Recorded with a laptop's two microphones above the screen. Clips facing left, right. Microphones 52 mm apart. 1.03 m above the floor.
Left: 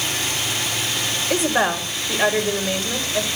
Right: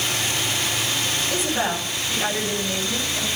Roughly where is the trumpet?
I don't hear a trumpet.